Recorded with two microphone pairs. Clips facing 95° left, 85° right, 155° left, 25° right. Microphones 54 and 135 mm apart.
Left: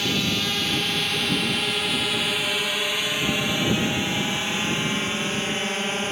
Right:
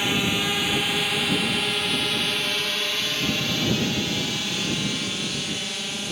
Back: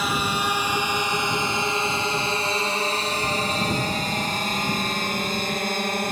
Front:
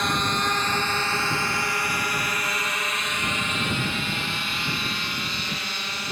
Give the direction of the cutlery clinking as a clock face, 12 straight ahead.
I don't hear cutlery clinking.